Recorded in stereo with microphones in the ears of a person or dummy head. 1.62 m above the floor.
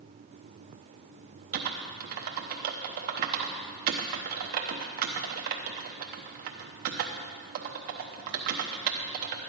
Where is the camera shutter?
I don't hear a camera shutter.